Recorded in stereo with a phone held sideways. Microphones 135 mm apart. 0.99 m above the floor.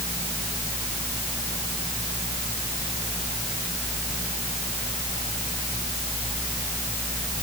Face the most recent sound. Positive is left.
No sound to turn to.